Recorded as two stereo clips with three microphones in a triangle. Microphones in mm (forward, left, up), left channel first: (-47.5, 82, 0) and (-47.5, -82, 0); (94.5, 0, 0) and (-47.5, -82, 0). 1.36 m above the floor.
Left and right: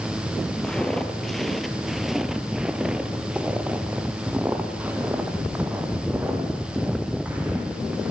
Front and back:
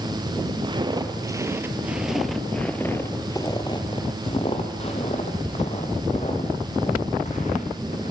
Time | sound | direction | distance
0.6 | footsteps | 175° left | 1.6 m